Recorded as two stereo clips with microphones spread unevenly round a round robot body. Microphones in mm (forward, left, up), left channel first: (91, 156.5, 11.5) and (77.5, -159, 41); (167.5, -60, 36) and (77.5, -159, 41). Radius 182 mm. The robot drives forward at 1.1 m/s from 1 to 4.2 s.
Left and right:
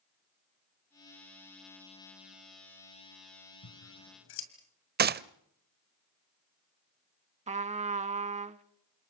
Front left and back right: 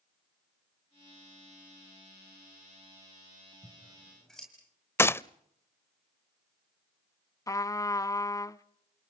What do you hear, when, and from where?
3.6 s scissors: 115° left, 1.6 m; by 4.5 s 135° left, 1.9 m
5.0 s a gunshot: 30° right, 0.5 m
7.5 s a trumpet: 20° right, 0.6 m